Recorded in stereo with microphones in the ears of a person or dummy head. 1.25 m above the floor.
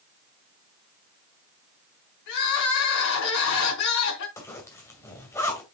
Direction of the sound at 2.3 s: 65° left (ahead or behind).